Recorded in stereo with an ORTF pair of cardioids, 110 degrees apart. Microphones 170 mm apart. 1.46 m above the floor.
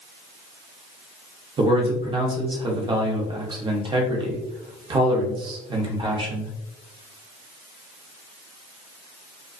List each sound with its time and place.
1.6 s a man speaking: 30° right, 0.8 m